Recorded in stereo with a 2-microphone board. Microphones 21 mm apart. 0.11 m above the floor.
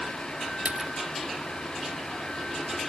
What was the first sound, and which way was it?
A splash, 80° right.